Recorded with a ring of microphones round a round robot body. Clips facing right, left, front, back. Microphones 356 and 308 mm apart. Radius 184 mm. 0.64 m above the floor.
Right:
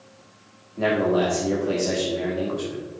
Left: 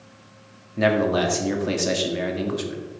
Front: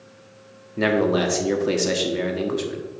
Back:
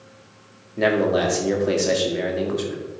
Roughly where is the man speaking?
Left.